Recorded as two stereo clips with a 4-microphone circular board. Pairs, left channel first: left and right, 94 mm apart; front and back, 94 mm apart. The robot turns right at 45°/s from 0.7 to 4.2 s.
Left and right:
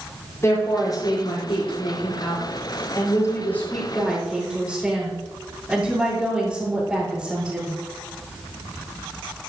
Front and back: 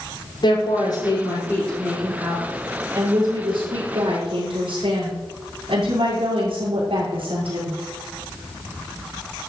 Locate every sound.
0.4 s a woman speaking: 30° left, 5.5 m; by 7.8 s 175° right, 5.5 m